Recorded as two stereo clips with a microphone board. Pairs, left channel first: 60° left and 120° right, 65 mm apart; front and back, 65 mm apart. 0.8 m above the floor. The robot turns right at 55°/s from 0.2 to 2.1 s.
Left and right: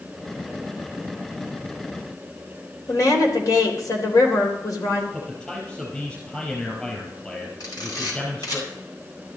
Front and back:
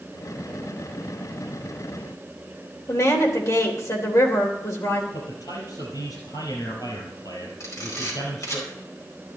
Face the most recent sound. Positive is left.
turn(degrees=35)